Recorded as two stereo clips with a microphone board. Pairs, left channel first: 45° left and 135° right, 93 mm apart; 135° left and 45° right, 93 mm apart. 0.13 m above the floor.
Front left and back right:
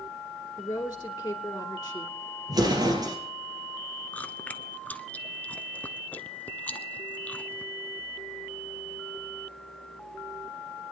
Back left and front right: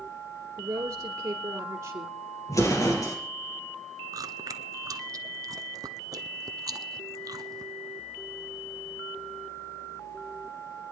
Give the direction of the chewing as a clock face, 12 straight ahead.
1 o'clock.